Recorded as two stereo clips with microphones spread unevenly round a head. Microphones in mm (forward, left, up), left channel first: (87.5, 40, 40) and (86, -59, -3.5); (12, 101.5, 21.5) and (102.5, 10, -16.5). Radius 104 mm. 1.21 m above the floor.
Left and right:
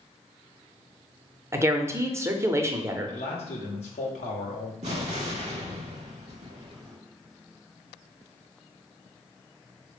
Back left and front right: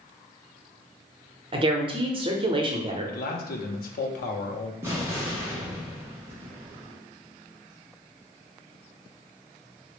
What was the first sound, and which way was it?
A woman speaking, 60° right.